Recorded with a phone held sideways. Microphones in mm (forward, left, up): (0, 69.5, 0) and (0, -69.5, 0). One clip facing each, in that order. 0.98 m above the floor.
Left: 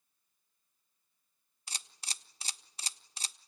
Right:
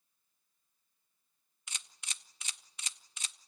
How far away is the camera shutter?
About 1.2 m.